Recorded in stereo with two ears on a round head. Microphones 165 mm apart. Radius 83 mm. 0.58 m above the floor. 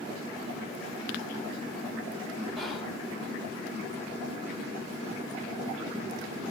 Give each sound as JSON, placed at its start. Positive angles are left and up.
{"t": 2.6, "sound": "whispering", "side_deg": 0, "distance_m": 0.6}